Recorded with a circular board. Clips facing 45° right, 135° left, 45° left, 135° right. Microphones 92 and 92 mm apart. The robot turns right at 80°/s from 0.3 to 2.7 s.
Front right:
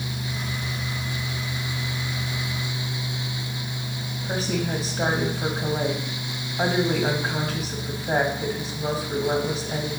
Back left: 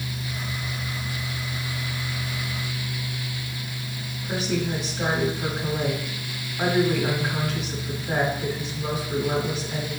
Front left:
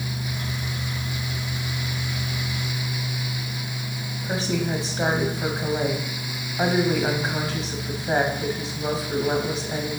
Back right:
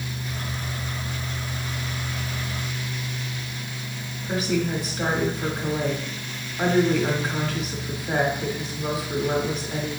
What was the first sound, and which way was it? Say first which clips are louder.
A woman speaking: even, back right 1 dB; 5° right.